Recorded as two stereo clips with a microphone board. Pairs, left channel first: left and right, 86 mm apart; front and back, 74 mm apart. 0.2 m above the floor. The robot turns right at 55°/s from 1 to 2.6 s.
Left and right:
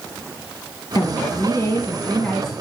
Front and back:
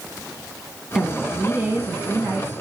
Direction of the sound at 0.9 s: 95° left.